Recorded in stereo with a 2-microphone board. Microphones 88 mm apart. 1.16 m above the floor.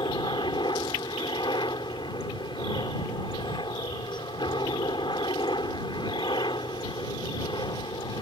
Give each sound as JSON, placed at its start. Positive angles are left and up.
{"t": 0.0, "sound": "a helicopter", "side_deg": 60}